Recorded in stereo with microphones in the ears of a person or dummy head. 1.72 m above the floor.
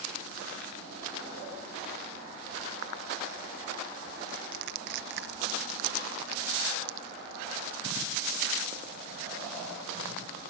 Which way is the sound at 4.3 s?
60° right (ahead or behind).